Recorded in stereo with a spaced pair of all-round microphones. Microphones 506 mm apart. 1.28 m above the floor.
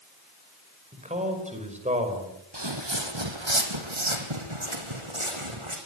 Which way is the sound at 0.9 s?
15° right (ahead or behind).